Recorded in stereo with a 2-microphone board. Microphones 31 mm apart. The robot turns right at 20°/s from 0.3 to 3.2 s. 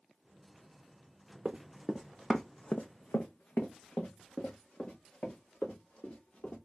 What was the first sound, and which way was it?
Running footsteps, 35° right (ahead or behind).